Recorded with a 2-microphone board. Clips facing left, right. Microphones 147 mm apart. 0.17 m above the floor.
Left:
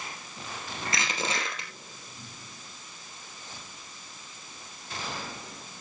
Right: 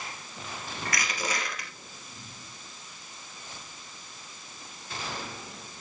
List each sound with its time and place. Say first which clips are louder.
0.8 s crushing: left 1 dB; 25° left (ahead or behind), 3 m